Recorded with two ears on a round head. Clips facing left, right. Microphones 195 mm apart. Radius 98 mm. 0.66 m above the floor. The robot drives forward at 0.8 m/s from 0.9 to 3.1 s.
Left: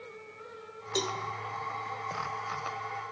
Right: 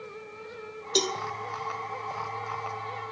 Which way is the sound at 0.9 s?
40° right (ahead or behind).